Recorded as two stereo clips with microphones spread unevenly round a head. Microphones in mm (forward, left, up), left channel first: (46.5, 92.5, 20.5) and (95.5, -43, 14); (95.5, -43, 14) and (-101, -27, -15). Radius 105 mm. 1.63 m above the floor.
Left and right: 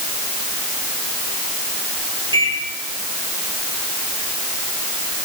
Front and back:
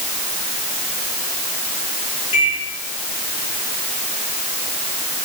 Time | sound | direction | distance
2.3 | a microwave | 10° right | 6 m